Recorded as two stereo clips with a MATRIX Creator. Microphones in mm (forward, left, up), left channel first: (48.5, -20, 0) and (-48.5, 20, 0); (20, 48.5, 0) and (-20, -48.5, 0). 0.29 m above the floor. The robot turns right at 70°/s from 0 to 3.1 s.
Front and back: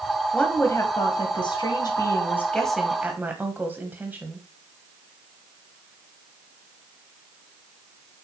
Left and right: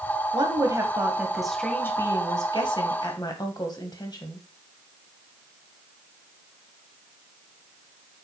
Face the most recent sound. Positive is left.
turn(degrees=95)